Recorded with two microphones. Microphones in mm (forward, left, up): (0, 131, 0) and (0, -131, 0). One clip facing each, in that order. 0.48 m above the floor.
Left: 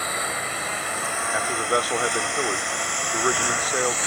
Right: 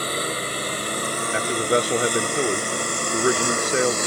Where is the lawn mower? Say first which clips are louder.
Right 5 dB; 40° right (ahead or behind); by 4.1 s 45° right (ahead or behind).